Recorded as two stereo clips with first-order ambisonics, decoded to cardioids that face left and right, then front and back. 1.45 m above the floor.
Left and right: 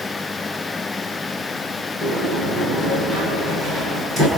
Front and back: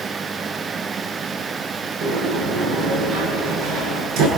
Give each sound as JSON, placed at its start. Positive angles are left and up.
{"t": 2.0, "sound": "a sliding door", "azimuth_deg": -160, "distance_m": 9.5}